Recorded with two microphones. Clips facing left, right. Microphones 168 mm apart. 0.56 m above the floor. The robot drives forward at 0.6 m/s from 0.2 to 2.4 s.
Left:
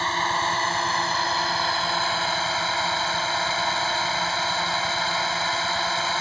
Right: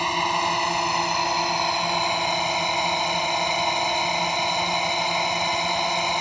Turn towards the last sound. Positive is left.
turn(degrees=-15)  # may be behind; listen again after turning